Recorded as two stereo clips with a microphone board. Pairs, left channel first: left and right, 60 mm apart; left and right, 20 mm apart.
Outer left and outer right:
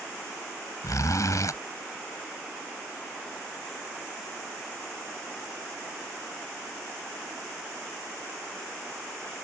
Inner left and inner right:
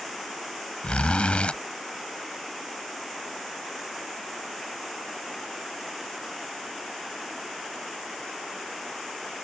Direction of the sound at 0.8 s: 65° left (ahead or behind).